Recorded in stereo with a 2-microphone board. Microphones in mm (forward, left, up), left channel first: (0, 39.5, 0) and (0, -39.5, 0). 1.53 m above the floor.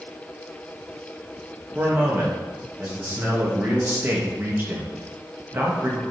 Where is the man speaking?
30° right (ahead or behind), 2.5 m.